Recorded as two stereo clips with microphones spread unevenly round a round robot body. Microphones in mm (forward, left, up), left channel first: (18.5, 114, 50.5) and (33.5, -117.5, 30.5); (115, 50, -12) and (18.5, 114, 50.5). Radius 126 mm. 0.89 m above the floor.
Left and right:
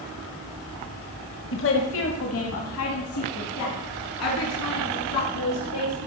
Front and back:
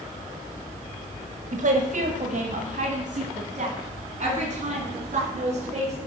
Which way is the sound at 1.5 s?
120° left.